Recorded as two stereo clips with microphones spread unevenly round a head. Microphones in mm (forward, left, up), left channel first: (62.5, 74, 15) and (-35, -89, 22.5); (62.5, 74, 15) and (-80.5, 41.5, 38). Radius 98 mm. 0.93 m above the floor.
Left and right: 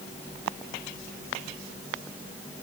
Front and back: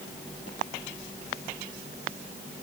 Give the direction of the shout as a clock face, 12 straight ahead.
No shout in this recording.